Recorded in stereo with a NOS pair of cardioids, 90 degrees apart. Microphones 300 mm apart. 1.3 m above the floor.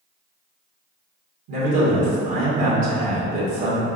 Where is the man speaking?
70° right, 1.6 m.